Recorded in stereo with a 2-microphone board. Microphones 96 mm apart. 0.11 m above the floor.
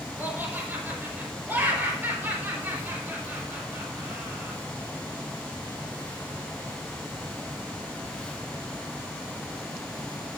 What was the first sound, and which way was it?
Laughter, 20° right (ahead or behind).